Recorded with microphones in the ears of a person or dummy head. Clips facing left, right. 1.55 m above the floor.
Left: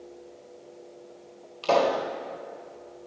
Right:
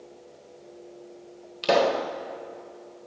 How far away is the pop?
About 1.5 m.